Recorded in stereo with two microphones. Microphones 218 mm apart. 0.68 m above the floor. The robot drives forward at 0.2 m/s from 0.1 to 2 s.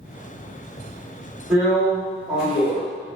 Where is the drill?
5° right (ahead or behind), 1.6 m.